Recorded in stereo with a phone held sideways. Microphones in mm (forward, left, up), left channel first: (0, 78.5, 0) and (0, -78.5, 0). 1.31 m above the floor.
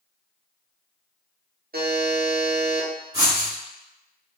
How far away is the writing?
About 1.6 m.